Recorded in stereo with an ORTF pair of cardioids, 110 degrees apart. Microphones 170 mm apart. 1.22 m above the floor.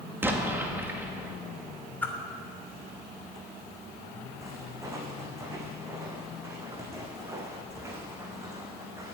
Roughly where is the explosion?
Ahead.